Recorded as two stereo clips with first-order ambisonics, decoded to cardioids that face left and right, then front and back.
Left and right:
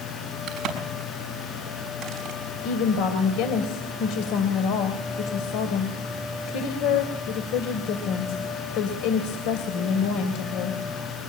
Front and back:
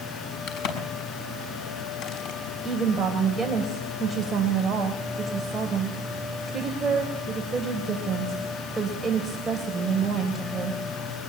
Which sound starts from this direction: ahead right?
A crack, at 0.5 s.